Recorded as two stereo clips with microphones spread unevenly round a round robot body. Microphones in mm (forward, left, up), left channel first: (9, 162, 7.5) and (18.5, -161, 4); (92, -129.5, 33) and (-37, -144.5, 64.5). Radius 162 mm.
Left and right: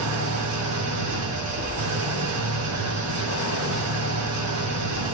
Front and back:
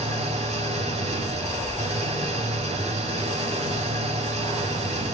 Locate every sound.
0.0 s an engine running: 135° right, 4 m